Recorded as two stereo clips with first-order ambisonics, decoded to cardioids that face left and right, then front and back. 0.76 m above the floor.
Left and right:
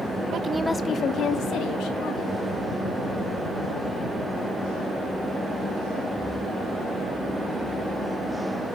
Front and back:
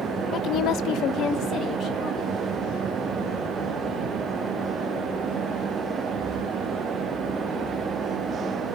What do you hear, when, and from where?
0.3 s a woman speaking: 50° right, 0.5 m; by 2.4 s 55° left, 1.9 m